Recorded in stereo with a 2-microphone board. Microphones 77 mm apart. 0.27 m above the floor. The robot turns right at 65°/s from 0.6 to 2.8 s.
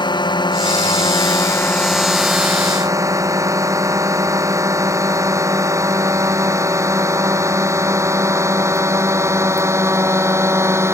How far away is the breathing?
I don't hear breathing.